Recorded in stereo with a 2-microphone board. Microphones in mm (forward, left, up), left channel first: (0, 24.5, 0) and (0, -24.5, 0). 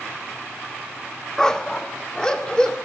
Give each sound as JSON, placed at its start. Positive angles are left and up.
{"t": 1.4, "sound": "a dog barking", "side_deg": 10, "distance_m": 1.0}